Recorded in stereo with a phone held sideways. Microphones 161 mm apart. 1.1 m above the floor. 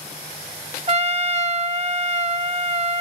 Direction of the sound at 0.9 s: 40° right (ahead or behind).